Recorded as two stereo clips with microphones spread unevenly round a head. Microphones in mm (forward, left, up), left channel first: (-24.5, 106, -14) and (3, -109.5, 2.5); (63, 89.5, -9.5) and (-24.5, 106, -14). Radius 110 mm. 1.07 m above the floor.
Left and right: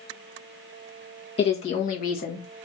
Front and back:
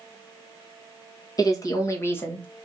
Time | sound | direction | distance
1.4 | a woman speaking | 35° left | 1.6 m